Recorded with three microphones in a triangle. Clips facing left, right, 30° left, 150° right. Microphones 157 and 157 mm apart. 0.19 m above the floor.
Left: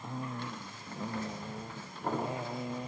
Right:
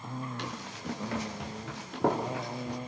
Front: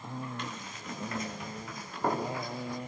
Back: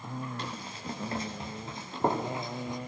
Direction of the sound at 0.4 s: 95° right.